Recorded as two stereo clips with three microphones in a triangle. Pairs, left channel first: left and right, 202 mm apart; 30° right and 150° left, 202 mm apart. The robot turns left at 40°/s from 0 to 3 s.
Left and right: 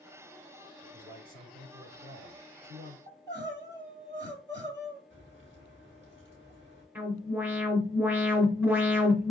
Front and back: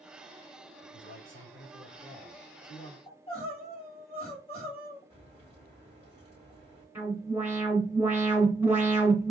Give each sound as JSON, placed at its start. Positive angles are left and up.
{"t": 0.8, "sound": "a man speaking", "azimuth_deg": -25, "distance_m": 3.5}
{"t": 3.1, "sound": "crying", "azimuth_deg": -90, "distance_m": 3.0}
{"t": 5.1, "sound": "a crack", "azimuth_deg": -105, "distance_m": 3.5}
{"t": 7.0, "sound": "an alarm", "azimuth_deg": -150, "distance_m": 1.9}